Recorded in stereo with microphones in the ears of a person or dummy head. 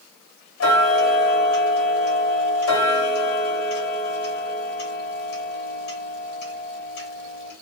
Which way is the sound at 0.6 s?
80° left.